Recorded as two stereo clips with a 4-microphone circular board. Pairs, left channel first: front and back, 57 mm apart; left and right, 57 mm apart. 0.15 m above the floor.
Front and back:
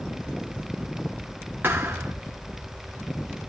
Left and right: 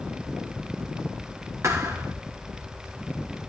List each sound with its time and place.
1.6 s a thud: 125° right, 3.5 m